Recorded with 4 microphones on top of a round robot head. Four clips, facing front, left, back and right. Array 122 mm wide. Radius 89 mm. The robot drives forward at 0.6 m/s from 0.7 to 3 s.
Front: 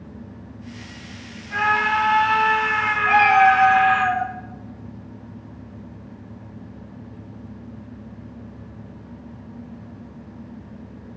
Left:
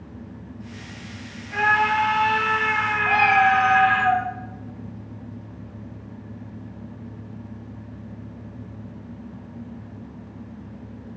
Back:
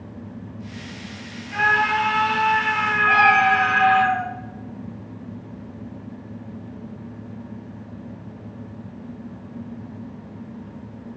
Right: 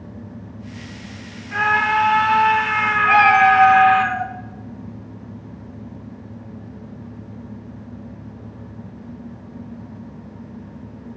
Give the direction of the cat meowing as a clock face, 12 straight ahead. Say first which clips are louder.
Right 5 dB, front 3 dB; 3 o'clock.